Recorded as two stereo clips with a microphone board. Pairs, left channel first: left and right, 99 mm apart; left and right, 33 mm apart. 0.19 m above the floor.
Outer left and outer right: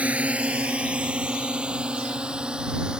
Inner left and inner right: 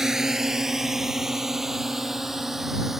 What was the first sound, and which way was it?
A drone, 15° right (ahead or behind).